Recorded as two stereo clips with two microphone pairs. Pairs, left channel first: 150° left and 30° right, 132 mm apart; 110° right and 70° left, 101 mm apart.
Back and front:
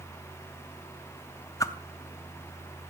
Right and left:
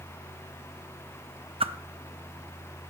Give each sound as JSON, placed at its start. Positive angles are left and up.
{"t": 1.6, "sound": "a whoosh", "azimuth_deg": 80, "distance_m": 0.7}